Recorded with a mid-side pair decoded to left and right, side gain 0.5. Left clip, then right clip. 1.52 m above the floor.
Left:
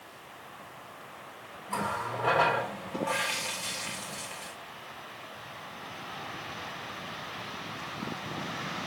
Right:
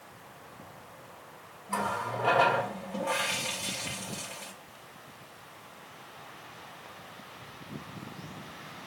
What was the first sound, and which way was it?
A running tap, straight ahead.